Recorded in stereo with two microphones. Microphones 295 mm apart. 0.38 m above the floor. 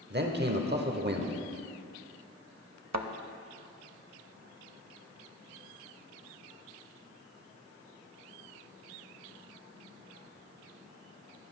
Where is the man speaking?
35° right (ahead or behind), 1.0 m.